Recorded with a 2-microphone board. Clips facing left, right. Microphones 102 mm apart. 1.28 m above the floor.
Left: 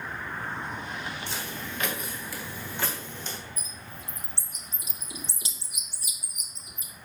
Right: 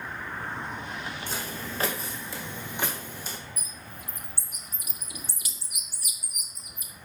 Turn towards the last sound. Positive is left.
turn(degrees=25)  # may be behind; listen again after turning